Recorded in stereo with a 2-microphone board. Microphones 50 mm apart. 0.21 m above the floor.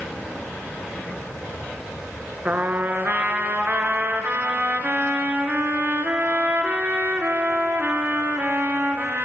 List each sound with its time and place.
2.5 s a trumpet: 35° right (ahead or behind), 1.7 m